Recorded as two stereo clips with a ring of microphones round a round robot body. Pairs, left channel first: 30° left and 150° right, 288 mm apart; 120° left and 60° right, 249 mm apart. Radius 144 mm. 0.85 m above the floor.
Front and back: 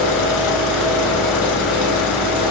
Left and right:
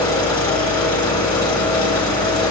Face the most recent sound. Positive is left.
turn(degrees=45)